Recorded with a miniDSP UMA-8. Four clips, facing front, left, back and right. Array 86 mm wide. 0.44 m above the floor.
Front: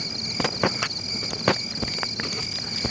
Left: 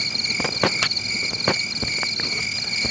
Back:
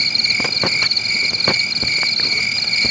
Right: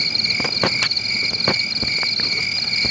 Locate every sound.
0.0 s an insect: 170° right